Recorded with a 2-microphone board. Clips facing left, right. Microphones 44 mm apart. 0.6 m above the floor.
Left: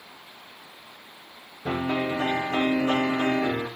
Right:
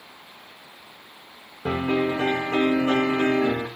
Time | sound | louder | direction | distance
1.6 | a piano | right 3 dB | 45° right (ahead or behind) | 6.5 m